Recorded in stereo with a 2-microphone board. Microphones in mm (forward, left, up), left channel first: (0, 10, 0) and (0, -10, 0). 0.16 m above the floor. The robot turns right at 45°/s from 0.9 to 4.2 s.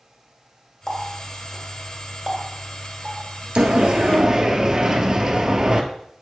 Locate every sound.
0.9 s a running tap: 15° left (ahead or behind), 1.7 m; by 3.7 s 55° right (ahead or behind), 1.7 m
3.6 s a sliding door: 50° right (ahead or behind), 0.8 m; by 5.8 s 25° right (ahead or behind), 0.8 m